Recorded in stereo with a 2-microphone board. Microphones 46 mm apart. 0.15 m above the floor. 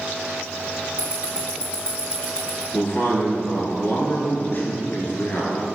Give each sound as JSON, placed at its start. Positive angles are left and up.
{"t": 1.0, "sound": "ticking", "side_deg": -25, "distance_m": 1.1}
{"t": 2.7, "sound": "a man speaking", "side_deg": 45, "distance_m": 1.9}